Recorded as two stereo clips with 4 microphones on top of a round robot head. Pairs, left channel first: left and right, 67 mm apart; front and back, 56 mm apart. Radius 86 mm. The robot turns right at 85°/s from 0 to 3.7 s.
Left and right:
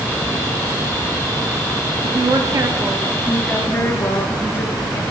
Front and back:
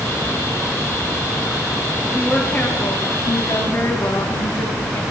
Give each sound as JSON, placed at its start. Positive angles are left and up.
{"t": 2.0, "sound": "a woman speaking", "azimuth_deg": -110, "distance_m": 0.9}